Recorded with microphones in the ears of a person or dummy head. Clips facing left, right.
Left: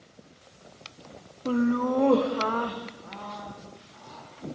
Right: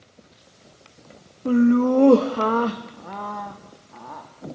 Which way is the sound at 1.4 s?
20° right (ahead or behind).